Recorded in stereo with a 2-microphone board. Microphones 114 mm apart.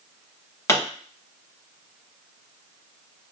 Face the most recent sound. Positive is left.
turn(degrees=25)  # may be behind; listen again after turning